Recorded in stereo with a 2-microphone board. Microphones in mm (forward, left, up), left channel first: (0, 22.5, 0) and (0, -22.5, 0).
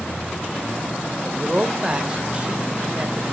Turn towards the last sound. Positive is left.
turn(degrees=-25)  # may be behind; listen again after turning